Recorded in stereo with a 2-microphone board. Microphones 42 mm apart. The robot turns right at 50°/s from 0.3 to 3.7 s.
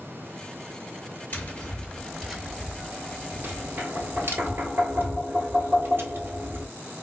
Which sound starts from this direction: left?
Tapping, at 1.3 s.